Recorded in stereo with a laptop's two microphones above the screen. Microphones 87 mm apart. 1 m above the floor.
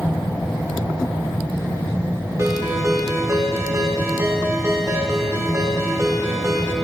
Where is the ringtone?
35° right (ahead or behind), 2.5 m.